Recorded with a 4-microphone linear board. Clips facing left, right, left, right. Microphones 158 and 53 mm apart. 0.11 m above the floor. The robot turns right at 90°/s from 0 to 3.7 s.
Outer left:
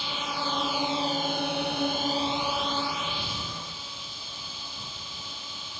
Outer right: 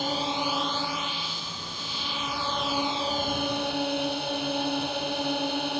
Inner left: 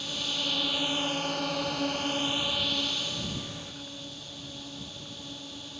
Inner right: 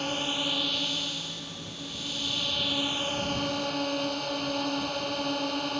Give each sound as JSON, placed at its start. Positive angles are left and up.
{"t": 0.0, "sound": "a drone", "azimuth_deg": -55}